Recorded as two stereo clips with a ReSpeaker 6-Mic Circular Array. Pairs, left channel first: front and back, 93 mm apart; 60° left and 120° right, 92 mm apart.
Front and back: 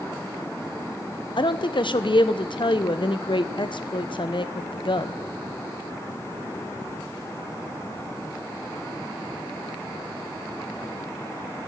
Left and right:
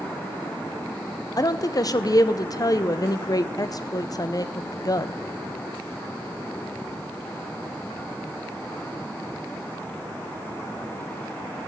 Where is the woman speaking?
15° left, 0.5 m.